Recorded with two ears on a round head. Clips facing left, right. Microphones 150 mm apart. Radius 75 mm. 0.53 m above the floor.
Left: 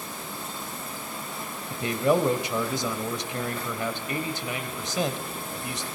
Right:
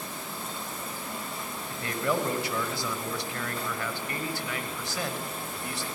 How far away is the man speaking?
About 2 m.